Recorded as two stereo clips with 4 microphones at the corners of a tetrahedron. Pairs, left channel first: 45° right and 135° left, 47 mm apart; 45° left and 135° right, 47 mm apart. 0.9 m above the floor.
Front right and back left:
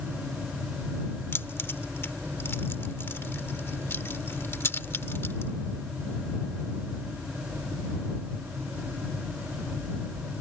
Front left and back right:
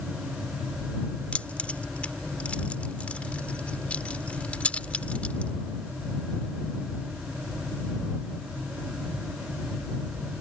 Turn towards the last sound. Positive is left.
turn(degrees=-15)